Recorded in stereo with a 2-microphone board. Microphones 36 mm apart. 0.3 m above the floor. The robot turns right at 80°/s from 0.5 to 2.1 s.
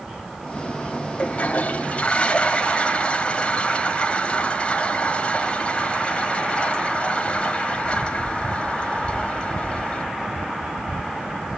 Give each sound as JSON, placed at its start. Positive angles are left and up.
{"t": 1.2, "sound": "a toilet flushing", "azimuth_deg": 55, "distance_m": 1.9}